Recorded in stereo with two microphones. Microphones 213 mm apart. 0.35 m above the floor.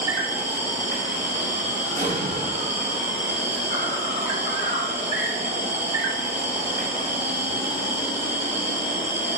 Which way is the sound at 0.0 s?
35° right (ahead or behind).